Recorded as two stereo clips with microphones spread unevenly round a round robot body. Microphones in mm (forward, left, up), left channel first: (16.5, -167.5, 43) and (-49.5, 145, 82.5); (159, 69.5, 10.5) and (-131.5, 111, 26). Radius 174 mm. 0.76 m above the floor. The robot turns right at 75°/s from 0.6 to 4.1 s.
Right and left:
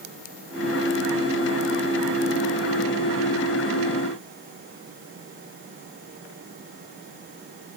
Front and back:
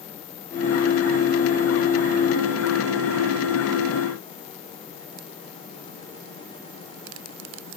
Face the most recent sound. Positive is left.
No sound to turn to.